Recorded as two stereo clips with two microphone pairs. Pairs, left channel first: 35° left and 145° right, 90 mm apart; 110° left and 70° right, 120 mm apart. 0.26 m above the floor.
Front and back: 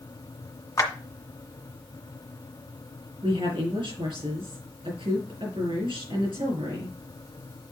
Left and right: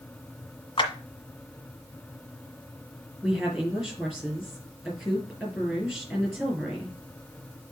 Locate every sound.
0.8 s a clap: 75° left, 1.7 m
3.2 s a woman speaking: 160° right, 6 m